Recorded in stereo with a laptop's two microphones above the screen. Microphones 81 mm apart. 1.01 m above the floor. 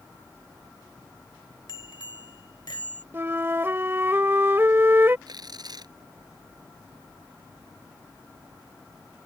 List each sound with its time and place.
1.7 s a bicycle bell: 80° left; by 3.0 s 70° left (ahead or behind)
3.1 s a flute: 30° right (ahead or behind)
5.3 s tearing paper: 55° right (ahead or behind)